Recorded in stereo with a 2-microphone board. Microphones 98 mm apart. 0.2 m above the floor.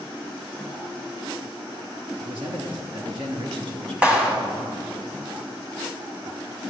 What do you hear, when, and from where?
2.2 s a man speaking: 60° right (ahead or behind), 2.5 m
4.0 s a clap: 15° right (ahead or behind), 1.4 m